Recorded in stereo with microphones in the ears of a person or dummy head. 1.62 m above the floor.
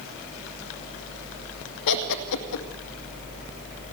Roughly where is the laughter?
Left.